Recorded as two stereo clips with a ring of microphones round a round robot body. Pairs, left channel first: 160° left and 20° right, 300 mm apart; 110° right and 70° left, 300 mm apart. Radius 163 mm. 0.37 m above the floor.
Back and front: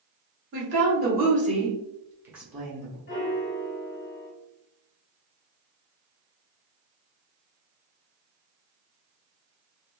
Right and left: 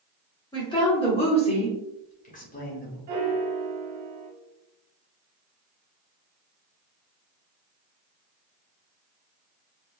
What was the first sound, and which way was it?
A woman speaking, 45° right.